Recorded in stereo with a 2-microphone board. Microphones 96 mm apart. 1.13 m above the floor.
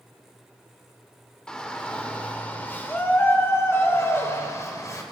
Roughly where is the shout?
Centre.